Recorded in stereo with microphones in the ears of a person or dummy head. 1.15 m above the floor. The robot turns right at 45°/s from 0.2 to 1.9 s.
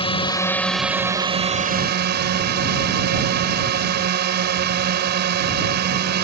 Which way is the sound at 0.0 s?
155° left.